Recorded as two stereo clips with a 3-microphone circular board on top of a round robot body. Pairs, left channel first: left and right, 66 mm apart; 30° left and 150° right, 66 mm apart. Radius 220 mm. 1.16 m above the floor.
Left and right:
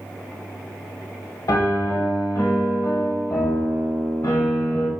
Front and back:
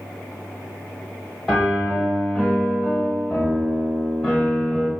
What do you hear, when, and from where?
1.5 s a piano: 120° left, 1.1 m